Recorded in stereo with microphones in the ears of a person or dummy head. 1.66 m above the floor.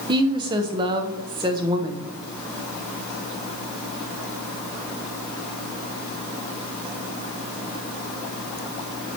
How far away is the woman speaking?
About 0.8 m.